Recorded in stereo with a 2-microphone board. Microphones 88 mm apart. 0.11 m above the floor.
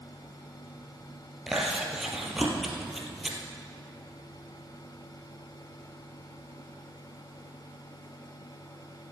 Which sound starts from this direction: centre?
Chewing, at 1.5 s.